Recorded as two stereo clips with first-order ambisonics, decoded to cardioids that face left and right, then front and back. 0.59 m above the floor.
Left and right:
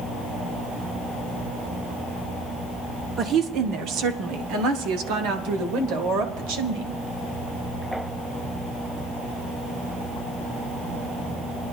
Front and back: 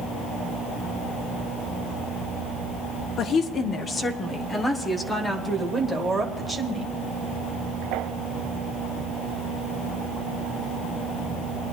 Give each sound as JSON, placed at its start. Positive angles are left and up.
{"t": 3.2, "sound": "a woman speaking", "azimuth_deg": -45, "distance_m": 1.0}